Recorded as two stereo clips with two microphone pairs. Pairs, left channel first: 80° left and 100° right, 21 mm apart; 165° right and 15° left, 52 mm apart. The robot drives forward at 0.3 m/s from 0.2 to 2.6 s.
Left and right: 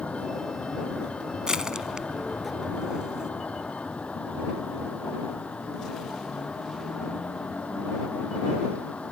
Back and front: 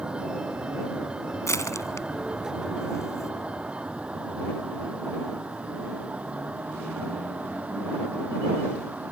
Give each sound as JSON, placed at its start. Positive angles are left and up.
{"t": 0.0, "sound": "a vehicle", "azimuth_deg": 85}
{"t": 1.5, "sound": "crushing", "azimuth_deg": -160}